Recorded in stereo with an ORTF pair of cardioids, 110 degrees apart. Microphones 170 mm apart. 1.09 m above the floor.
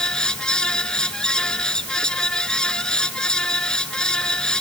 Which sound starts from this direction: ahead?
A fan, at 0.0 s.